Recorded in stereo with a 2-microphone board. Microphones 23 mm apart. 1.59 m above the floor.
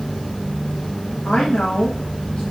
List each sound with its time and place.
1.2 s a woman speaking: 70° left (ahead or behind), 1.9 m